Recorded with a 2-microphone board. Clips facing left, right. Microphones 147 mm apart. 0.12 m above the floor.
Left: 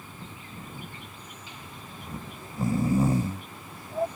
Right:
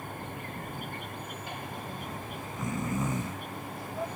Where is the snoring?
35° left (ahead or behind).